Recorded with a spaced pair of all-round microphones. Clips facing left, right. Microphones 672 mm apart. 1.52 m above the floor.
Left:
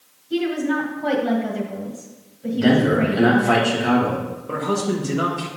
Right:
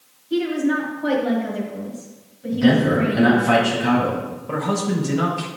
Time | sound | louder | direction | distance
0.3 | a woman speaking | right 1 dB | 25° left (ahead or behind) | 1.3 m
2.5 | a man speaking | even | 45° right (ahead or behind) | 2.5 m
4.5 | a man speaking | even | 25° right (ahead or behind) | 1.3 m